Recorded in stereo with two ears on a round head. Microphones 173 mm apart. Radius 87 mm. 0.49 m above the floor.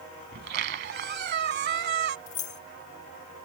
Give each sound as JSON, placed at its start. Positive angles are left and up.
{"t": 0.3, "sound": "a squeak", "side_deg": -60}
{"t": 2.3, "sound": "keys jangling", "side_deg": 40}